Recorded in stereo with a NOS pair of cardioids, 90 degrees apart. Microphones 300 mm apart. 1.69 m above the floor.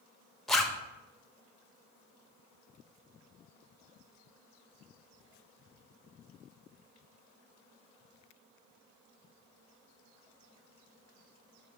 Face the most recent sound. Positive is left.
turn(degrees=0)